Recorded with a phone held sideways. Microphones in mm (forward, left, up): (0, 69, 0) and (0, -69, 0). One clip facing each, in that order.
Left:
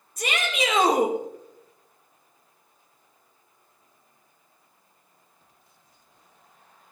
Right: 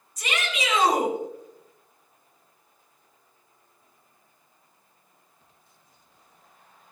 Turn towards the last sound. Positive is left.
turn(degrees=55)  # may be behind; listen again after turning